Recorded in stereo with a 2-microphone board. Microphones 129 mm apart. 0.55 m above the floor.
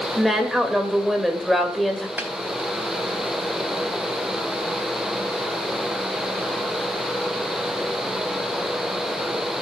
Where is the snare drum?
15° right (ahead or behind), 2.5 m.